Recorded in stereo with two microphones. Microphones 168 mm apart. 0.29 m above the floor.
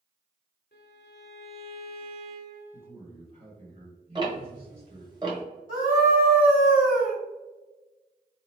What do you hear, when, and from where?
0.7 s a violin: 75° left (ahead or behind), 0.8 m
2.7 s a man speaking: 40° right (ahead or behind), 1.4 m
4.2 s ticking: 25° right (ahead or behind), 1.1 m
5.7 s a scream: 55° right (ahead or behind), 1.9 m